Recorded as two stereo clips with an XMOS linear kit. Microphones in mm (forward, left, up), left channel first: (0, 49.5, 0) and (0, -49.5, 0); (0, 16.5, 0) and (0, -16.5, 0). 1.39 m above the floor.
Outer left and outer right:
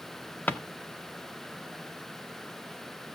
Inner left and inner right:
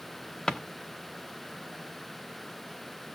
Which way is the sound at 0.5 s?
20° left (ahead or behind).